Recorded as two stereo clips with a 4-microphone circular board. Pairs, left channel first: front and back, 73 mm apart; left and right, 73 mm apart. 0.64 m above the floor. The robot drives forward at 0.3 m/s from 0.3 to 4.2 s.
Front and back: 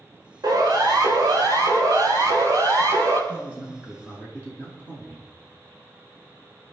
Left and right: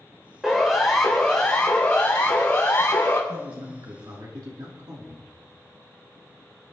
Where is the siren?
175° right, 4 m; by 3.2 s 155° left, 6.5 m.